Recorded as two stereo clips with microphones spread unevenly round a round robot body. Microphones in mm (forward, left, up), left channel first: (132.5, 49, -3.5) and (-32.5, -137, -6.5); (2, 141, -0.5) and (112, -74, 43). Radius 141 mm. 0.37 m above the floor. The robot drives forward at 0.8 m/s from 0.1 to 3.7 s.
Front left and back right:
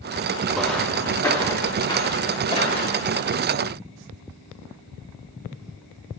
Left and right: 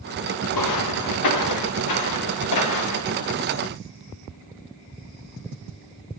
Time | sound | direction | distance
0.5 | footsteps | 140° left | 1.9 m